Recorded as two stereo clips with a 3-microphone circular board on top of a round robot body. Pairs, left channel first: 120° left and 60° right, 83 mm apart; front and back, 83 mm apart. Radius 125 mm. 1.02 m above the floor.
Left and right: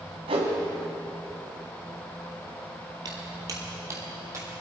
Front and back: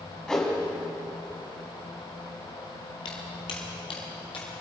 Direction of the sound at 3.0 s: 20° right.